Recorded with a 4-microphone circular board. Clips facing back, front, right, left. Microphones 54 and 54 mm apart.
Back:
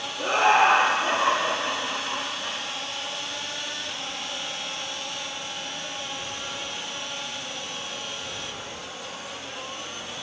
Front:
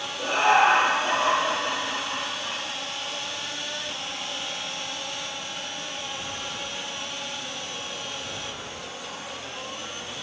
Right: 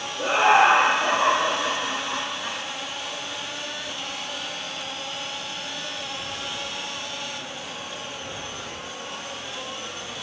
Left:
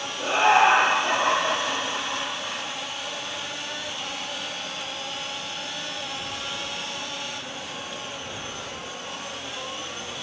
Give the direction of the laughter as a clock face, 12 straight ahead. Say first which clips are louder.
Even, right 1 dB; 5 o'clock.